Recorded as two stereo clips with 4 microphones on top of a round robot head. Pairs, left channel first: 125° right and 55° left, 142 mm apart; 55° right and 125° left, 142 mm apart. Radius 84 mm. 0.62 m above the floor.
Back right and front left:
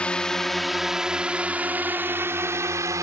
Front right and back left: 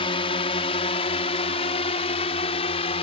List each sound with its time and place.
0.0 s a drone: 50° right; by 3.0 s 10° right